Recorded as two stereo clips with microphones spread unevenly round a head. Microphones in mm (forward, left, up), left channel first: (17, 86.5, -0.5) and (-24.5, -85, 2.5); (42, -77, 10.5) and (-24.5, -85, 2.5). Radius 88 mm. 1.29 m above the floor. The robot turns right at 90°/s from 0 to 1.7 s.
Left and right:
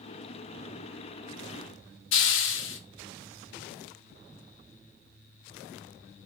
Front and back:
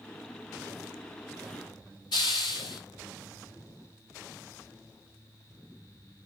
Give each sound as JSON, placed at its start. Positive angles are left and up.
{"t": 2.1, "sound": "a hiss", "azimuth_deg": 55, "distance_m": 0.8}